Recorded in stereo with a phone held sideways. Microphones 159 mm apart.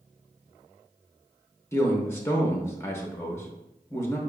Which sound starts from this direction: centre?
A man speaking, at 1.7 s.